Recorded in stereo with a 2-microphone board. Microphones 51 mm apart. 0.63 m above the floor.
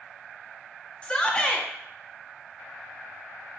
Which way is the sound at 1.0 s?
20° left (ahead or behind).